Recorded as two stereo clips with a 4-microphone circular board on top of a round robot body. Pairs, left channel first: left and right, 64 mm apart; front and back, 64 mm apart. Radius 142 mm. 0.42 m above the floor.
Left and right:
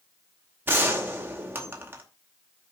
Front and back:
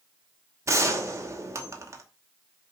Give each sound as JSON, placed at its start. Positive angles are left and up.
{"t": 0.7, "sound": "a gunshot", "azimuth_deg": -145, "distance_m": 2.5}